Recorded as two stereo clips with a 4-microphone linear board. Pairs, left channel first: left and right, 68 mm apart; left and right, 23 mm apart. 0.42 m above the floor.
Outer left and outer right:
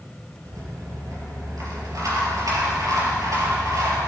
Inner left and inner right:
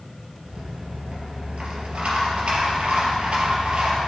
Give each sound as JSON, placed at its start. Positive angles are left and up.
{"t": 0.5, "sound": "a rattle", "side_deg": -55, "distance_m": 3.0}